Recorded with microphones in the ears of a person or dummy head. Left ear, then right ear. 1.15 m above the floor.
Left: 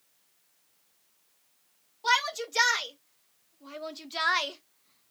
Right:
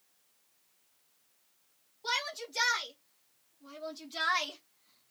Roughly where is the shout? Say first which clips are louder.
Left 8 dB; left.